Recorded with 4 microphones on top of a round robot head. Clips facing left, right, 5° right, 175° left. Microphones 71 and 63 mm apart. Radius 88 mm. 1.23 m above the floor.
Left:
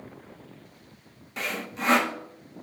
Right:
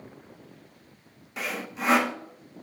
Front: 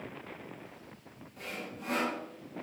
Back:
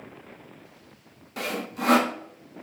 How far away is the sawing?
About 1.3 m.